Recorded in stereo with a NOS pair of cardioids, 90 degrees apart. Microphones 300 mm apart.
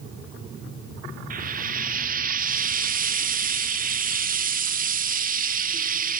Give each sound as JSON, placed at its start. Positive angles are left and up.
{"t": 1.3, "sound": "frying", "azimuth_deg": -30, "distance_m": 0.6}